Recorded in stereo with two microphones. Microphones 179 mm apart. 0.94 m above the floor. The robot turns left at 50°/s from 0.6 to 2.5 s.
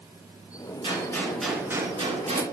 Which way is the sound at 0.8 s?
30° left.